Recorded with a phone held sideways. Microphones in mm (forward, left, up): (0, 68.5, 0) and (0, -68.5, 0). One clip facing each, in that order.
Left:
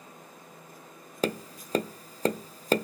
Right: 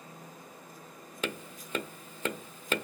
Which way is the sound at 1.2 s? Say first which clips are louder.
Left 7 dB; 35° left (ahead or behind).